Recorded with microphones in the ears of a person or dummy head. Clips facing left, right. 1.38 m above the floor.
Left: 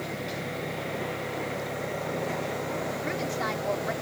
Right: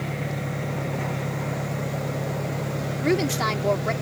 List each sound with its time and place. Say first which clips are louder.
0.0 s an engine running: right 3 dB; 60° right (ahead or behind)
3.0 s a woman speaking: right 8 dB; 70° right (ahead or behind)